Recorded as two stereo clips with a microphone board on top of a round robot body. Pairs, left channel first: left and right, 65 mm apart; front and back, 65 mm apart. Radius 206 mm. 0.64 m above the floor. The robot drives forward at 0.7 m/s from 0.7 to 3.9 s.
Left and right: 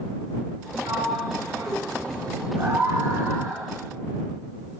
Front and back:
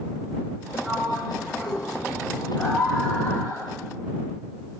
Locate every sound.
0.8 s a sliding door: 95° right, 7.5 m; by 2.5 s 100° right, 7.5 m
2.6 s a scream: 65° right, 3 m; by 3.7 s 80° right, 2.5 m